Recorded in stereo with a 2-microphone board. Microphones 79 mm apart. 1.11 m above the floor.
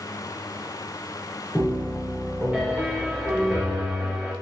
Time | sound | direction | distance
1.6 | a piano | 20° right (ahead or behind) | 1.0 m